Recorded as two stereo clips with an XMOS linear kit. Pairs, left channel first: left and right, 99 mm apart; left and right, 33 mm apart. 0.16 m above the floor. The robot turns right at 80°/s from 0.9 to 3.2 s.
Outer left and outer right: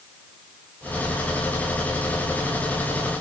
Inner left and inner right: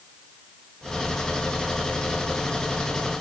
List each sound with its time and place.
Only background noise.